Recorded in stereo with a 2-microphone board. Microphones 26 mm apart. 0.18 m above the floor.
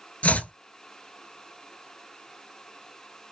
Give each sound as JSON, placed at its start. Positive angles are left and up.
{"t": 0.2, "sound": "chopping", "side_deg": 75, "distance_m": 0.7}